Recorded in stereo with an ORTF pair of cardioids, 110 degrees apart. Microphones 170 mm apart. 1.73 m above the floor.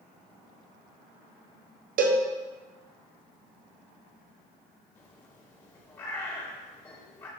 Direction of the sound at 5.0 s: 15° left.